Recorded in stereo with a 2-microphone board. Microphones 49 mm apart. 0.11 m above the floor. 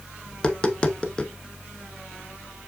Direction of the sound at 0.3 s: 20° left (ahead or behind).